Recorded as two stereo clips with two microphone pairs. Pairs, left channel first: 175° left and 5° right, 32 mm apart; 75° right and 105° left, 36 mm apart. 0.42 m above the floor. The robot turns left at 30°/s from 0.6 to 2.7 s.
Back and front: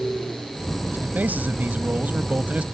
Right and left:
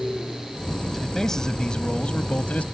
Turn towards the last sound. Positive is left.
turn(degrees=-40)